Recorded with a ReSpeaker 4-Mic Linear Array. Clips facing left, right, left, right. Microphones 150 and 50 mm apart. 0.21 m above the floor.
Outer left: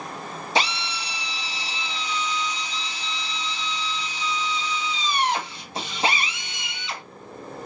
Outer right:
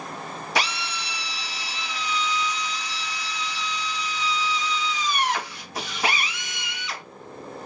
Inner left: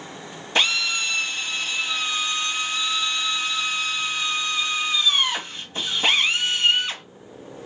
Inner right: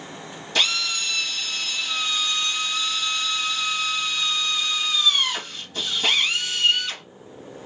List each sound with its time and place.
0.6 s a drill: 25° left (ahead or behind), 0.8 m